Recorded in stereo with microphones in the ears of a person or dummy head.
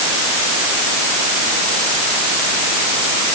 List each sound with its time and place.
Only background noise.